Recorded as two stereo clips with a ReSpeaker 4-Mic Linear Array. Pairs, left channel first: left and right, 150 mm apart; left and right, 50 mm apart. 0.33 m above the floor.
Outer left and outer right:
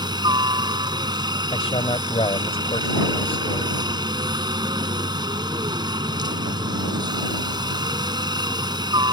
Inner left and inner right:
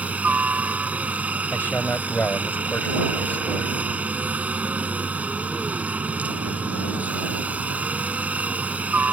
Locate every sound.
0.0 s a helicopter: 25° right (ahead or behind)
1.5 s a man speaking: 40° left (ahead or behind)